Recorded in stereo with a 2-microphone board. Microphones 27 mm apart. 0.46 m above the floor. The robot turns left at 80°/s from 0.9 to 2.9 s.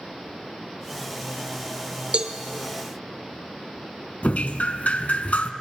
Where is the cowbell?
45° right (ahead or behind), 0.8 m; by 2.3 s 35° right (ahead or behind), 0.8 m.